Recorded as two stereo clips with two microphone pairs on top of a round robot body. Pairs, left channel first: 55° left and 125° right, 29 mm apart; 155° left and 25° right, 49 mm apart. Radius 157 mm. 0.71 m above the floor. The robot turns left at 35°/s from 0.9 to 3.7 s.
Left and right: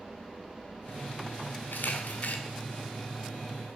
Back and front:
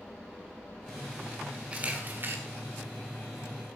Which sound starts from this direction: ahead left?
A camera shutter, at 1.7 s.